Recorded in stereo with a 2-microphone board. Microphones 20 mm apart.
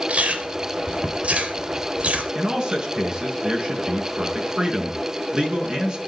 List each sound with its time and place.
0.1 s chewing: 85° right, 3.5 m
2.4 s a man speaking: 45° right (ahead or behind), 5 m